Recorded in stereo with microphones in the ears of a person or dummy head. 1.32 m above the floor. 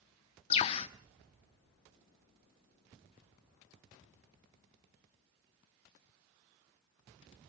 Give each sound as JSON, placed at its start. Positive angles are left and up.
{"t": 0.5, "sound": "a bird", "side_deg": 30, "distance_m": 1.3}